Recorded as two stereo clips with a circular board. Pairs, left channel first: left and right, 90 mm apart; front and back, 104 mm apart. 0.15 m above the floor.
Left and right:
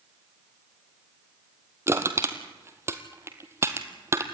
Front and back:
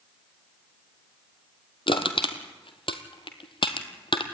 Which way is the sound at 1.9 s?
30° right.